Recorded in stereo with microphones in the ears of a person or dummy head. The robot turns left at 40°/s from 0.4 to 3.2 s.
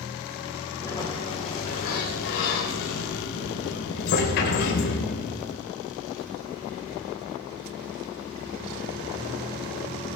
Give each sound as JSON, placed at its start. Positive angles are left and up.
{"t": 0.8, "sound": "a sliding door", "azimuth_deg": 165, "distance_m": 4.0}